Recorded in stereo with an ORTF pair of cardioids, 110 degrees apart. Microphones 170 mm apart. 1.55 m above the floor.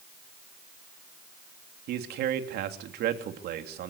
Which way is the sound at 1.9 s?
70° right.